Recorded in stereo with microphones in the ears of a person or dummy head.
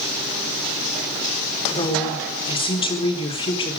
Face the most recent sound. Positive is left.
turn(degrees=25)  # may be behind; listen again after turning